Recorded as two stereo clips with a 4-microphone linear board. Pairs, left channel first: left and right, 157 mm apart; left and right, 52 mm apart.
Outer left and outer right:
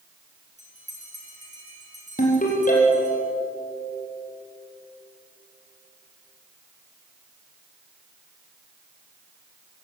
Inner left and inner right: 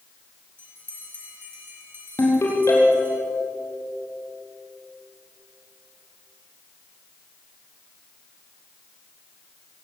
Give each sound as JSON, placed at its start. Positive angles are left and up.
{"t": 0.6, "sound": "a bell", "side_deg": -50, "distance_m": 7.0}
{"t": 2.2, "sound": "a ringtone", "side_deg": 60, "distance_m": 5.0}